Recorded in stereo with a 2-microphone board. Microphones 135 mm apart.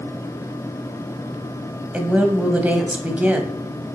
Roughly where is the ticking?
No ticking in this recording.